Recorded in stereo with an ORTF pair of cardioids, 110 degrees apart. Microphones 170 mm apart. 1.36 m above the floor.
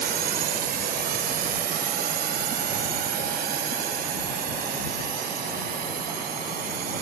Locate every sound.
0.0 s a drone: 65° right; by 7.0 s 60° right